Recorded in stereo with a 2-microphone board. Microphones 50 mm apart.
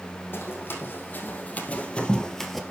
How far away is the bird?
No bird in this recording.